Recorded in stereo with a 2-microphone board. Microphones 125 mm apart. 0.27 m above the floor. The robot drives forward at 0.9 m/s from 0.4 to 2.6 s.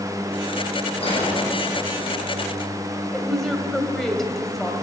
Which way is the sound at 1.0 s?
45° left (ahead or behind).